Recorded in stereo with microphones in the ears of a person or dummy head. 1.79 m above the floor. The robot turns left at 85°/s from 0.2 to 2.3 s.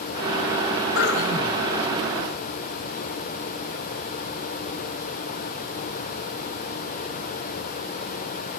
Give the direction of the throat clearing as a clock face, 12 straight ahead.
8 o'clock.